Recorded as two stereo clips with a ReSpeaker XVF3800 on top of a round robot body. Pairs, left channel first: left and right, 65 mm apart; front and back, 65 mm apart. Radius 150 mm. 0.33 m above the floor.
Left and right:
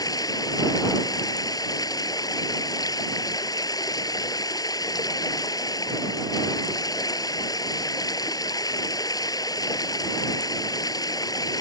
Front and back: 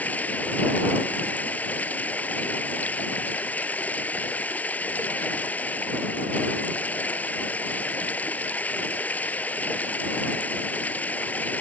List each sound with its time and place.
0.0 s running water: 70° left